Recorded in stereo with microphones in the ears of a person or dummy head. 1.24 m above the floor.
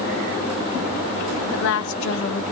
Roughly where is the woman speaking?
Left.